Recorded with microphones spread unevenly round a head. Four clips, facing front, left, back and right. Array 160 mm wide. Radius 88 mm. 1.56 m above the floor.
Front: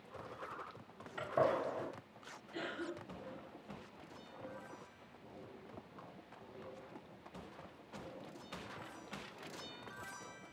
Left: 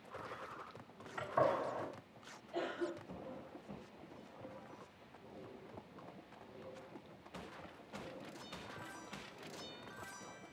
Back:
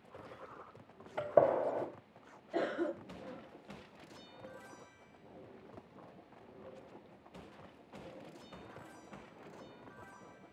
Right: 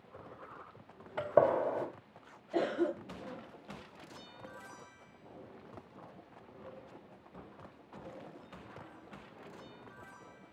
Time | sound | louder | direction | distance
1.2 | a gunshot | right 7 dB, back 6 dB | 115° right | 1.7 m
2.5 | a cough | right 9 dB, back 8 dB | 115° right | 0.8 m